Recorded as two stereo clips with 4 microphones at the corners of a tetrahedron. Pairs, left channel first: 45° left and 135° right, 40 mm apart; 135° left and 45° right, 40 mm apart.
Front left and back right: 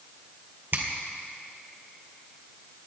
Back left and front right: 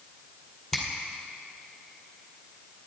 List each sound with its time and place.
0.7 s a finger snap: 155° right, 2.0 m